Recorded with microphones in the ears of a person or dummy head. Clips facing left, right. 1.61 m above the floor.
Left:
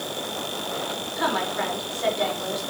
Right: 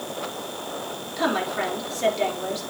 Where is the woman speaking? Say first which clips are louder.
Right 2 dB; 40° right (ahead or behind), 4.5 m.